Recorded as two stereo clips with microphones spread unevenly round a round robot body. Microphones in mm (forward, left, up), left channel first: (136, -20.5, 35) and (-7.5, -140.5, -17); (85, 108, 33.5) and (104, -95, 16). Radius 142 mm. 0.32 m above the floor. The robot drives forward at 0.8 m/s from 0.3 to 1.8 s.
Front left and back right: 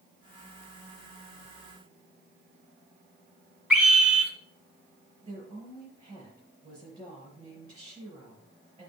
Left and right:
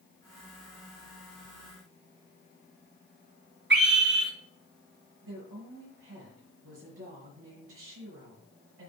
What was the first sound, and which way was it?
A scream, 60° right.